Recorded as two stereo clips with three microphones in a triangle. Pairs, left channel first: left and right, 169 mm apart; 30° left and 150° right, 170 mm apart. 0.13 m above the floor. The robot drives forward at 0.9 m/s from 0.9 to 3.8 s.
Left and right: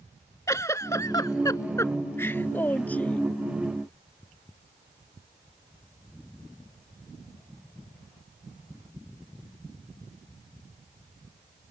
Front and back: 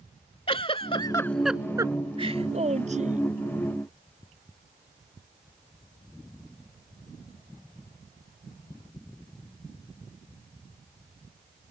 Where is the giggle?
35° left; by 3.3 s 170° left.